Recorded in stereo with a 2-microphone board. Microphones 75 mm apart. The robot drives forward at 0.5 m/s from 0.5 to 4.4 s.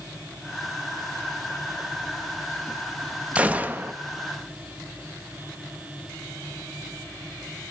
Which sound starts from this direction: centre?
A gunshot, at 3.4 s.